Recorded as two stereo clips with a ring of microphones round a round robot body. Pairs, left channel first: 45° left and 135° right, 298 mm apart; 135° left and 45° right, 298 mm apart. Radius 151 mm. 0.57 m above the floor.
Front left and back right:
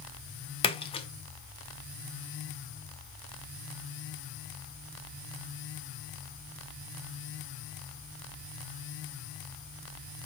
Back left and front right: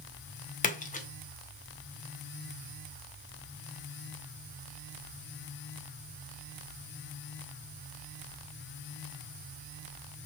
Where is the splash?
100° left, 0.7 m.